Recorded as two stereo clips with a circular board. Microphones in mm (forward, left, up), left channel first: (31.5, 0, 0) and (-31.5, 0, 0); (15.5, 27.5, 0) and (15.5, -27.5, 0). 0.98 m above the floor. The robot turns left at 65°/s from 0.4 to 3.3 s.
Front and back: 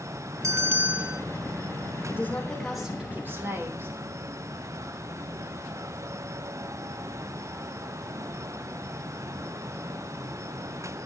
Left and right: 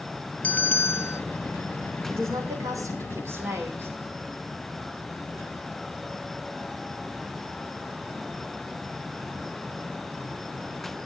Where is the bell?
150° left, 0.7 m; by 1.2 s 100° left, 0.7 m.